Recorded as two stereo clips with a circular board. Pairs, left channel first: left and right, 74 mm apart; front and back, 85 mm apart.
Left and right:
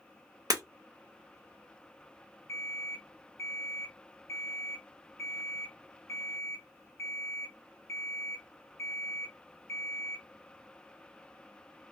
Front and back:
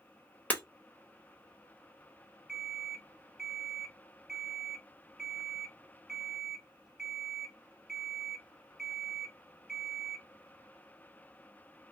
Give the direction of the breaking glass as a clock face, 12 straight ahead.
2 o'clock.